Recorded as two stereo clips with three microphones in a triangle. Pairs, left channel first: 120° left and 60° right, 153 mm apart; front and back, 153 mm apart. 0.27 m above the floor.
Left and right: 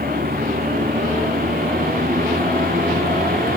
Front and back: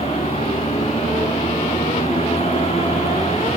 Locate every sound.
0.0 s a vehicle: 50° right